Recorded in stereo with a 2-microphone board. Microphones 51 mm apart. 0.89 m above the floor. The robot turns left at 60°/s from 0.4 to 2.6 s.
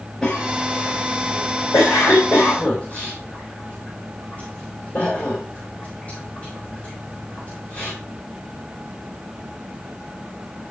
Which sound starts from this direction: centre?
A cough, at 0.2 s.